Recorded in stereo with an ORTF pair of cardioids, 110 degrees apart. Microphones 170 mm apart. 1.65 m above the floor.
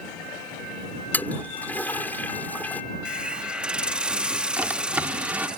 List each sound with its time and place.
1.1 s a toilet flushing: 10° left
3.0 s a hiss: 5° right
4.6 s a drawer: 10° right